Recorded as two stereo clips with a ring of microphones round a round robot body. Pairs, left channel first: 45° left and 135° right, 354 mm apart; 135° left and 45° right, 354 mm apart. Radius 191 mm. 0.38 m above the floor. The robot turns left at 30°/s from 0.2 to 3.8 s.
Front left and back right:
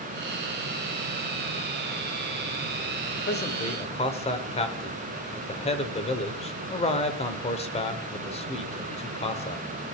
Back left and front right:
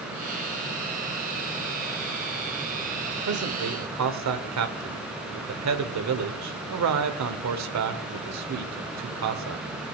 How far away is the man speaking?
About 1.4 m.